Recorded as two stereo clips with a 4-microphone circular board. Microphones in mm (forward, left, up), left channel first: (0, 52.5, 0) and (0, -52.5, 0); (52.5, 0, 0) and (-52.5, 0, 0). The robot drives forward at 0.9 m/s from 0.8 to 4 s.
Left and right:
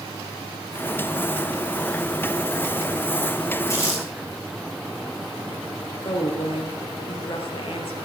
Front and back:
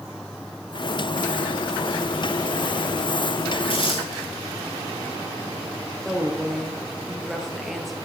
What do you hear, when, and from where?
3.7 s crumpling: 30° left, 9 m
6.0 s a woman speaking: 90° left, 3.5 m